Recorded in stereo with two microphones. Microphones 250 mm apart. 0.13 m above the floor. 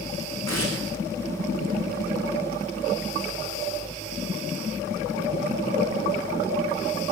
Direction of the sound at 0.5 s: 85° left.